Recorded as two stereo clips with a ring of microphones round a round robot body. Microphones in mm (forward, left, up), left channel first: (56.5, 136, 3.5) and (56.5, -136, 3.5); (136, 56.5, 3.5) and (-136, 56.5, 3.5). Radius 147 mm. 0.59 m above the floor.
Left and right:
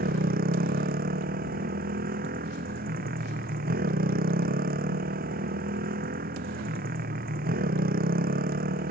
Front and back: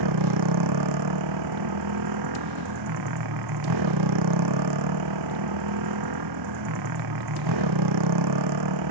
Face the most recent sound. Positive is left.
turn(degrees=-155)